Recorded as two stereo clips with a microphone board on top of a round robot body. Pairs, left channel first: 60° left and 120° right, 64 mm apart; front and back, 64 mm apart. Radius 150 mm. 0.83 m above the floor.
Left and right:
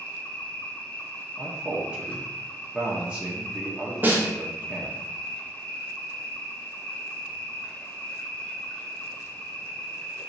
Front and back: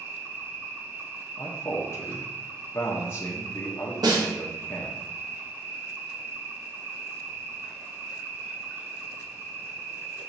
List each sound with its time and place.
0.0 s an insect: 125° left, 1.0 m
1.4 s a man speaking: 50° right, 0.8 m
4.0 s a snare drum: straight behind, 0.8 m